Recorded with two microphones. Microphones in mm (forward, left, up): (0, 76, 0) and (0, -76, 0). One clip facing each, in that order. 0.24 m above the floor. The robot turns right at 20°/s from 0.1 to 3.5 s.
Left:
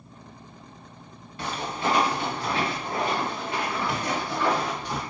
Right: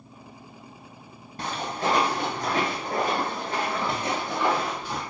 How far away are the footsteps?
About 1.8 m.